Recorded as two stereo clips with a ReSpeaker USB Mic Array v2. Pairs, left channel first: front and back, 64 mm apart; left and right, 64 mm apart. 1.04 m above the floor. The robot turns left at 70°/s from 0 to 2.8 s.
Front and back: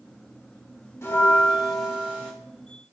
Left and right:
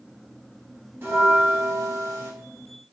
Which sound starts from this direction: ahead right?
A bell, at 1.0 s.